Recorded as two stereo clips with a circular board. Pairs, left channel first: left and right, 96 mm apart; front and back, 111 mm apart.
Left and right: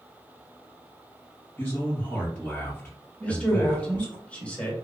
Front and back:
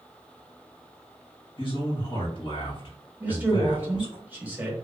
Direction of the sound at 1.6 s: 15° left.